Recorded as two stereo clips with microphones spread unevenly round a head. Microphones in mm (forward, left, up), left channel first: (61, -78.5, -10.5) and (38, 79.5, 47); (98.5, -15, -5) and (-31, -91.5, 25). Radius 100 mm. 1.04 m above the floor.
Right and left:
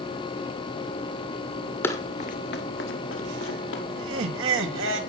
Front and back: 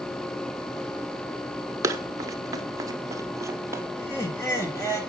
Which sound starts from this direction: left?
Laughter, at 4.0 s.